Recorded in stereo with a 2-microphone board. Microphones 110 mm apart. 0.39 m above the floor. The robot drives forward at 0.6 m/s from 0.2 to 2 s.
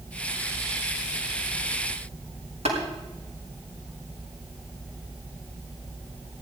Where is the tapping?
75° right (ahead or behind), 5 m.